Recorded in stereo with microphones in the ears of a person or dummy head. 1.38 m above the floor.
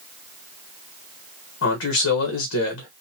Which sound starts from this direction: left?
A man speaking, at 1.6 s.